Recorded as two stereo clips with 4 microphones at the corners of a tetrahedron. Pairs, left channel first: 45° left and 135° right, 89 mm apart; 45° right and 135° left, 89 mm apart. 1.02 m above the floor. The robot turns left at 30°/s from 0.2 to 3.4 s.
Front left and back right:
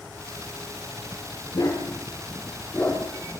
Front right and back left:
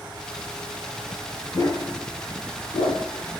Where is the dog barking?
5° left, 5.5 m; by 3.0 s 40° right, 5.5 m.